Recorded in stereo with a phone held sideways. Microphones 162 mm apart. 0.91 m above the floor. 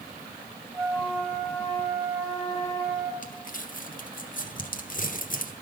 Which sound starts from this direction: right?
A flute, at 0.7 s.